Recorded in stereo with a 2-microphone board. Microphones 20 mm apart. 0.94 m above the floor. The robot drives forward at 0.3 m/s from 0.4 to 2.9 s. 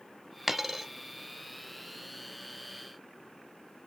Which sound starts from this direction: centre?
A dropped coin, at 0.5 s.